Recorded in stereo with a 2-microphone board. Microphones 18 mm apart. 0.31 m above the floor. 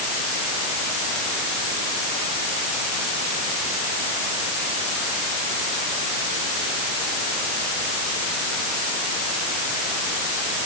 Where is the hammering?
No hammering in this recording.